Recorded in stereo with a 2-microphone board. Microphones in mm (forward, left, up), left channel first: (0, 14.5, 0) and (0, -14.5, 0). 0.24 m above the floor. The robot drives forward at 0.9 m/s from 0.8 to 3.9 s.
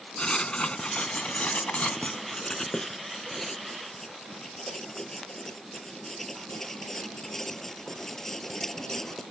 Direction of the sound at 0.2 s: 40° left (ahead or behind).